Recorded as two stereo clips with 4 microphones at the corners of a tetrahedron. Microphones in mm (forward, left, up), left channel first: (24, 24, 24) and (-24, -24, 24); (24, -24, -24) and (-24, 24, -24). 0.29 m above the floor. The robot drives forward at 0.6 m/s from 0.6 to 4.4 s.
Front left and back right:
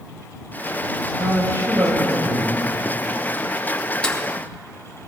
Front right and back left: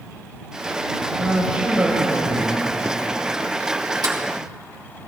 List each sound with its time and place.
1.2 s a man speaking: 160° right, 6 m
4.0 s a sliding door: 120° left, 3.5 m